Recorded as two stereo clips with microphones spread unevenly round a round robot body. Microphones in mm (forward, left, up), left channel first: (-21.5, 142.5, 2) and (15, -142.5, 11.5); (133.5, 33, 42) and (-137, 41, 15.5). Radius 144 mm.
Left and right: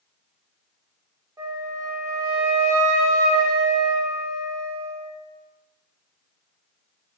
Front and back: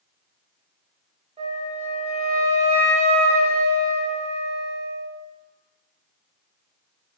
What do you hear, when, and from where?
1.4 s a flute: 155° right, 0.9 m